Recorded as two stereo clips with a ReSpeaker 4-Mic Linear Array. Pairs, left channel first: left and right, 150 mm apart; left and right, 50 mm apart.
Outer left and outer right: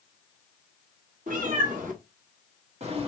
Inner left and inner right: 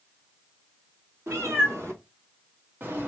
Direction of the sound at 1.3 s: 65° right (ahead or behind).